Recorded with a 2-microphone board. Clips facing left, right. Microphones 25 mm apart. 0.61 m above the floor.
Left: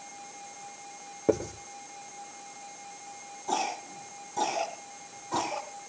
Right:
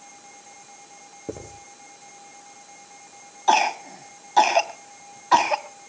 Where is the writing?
40° left (ahead or behind), 7.5 m.